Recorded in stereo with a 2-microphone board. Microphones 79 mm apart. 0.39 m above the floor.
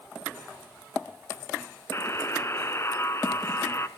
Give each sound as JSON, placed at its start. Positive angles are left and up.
{"t": 1.9, "sound": "a buzzer", "side_deg": 35, "distance_m": 1.0}